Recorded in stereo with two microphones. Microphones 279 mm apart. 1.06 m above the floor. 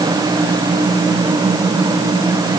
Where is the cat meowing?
I don't hear a cat meowing.